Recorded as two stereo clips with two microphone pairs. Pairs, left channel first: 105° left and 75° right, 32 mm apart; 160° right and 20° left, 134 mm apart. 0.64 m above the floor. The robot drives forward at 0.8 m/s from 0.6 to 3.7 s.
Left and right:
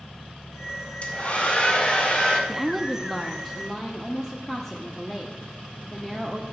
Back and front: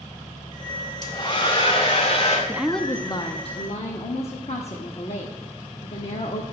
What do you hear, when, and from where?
1.0 s a hair dryer: 145° left, 1.5 m; by 2.4 s 160° left, 2.5 m
2.5 s a woman speaking: 15° right, 0.6 m; by 6.4 s 175° right, 1.0 m